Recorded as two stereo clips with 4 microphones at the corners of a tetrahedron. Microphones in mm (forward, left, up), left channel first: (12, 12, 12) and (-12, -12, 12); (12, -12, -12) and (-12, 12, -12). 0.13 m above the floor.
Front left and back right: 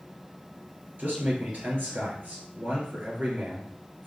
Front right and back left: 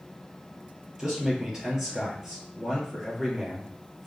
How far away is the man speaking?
About 2 m.